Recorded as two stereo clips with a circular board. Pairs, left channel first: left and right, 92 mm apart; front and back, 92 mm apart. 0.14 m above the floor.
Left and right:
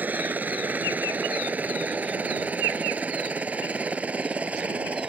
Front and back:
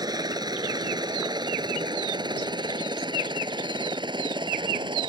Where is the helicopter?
155° right; by 5.1 s 165° right.